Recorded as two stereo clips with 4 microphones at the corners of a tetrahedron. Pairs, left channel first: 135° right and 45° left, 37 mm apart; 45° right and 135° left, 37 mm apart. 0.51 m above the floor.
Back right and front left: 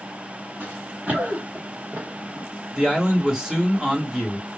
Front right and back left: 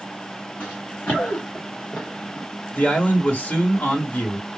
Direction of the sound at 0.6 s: 15° right.